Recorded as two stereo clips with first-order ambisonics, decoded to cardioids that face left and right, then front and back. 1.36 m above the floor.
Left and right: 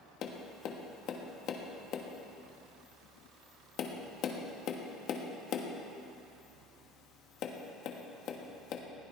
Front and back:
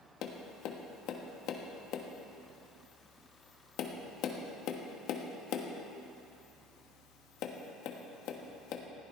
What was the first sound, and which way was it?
Tapping, 40° left.